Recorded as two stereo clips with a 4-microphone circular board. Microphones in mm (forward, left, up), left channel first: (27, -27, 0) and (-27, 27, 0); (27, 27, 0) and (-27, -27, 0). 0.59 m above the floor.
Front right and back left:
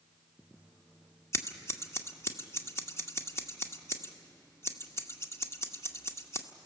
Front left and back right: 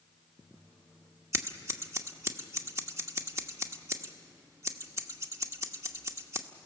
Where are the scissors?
90° right, 1.1 m.